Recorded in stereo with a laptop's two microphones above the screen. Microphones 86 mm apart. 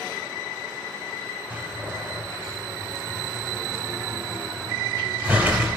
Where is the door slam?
15° right (ahead or behind), 3 m.